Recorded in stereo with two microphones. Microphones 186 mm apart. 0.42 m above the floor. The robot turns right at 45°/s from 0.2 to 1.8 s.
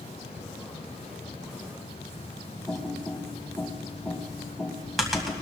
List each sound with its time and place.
2.7 s typing on a keyboard: centre (ahead or behind), 2.5 m